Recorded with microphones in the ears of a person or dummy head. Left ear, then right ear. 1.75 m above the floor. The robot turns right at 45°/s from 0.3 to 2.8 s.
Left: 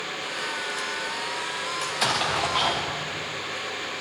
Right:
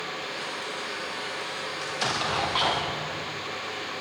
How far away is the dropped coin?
I don't hear a dropped coin.